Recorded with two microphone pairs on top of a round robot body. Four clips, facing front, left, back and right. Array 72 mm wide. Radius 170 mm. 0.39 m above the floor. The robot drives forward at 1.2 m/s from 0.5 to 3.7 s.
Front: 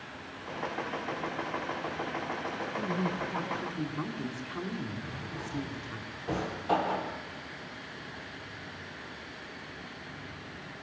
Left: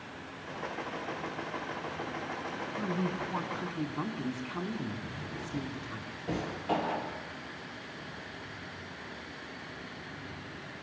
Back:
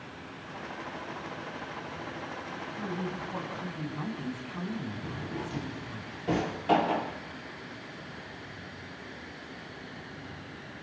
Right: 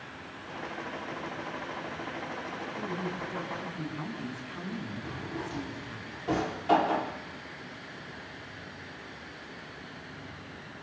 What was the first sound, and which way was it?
A woman speaking, 95° left.